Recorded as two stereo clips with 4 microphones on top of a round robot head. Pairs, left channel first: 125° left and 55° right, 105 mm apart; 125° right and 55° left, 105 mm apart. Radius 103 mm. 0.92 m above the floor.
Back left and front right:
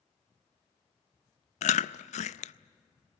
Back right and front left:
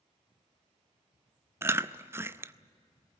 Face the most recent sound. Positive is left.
turn(degrees=125)